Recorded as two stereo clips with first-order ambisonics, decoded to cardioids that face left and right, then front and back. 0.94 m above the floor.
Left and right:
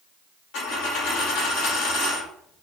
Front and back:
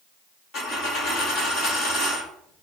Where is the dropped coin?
50° left, 1.2 m.